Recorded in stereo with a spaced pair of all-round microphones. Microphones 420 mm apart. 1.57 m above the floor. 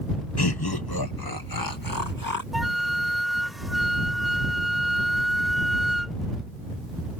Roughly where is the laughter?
Left.